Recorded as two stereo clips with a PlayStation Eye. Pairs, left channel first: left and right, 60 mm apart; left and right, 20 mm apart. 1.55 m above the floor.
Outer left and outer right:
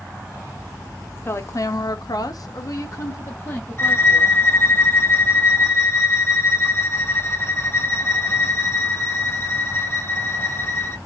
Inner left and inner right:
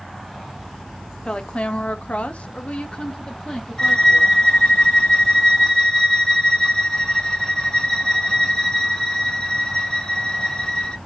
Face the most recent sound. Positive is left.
turn(degrees=40)  # may be behind; listen again after turning